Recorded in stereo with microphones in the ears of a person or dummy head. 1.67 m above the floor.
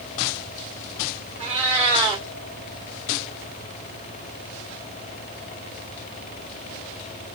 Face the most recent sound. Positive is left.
turn(degrees=-5)  # may be behind; listen again after turning